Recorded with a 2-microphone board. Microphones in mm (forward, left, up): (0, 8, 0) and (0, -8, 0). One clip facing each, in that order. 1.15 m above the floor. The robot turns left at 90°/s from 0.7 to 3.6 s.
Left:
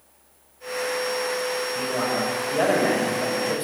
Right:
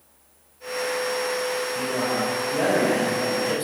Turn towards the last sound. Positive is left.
turn(degrees=-5)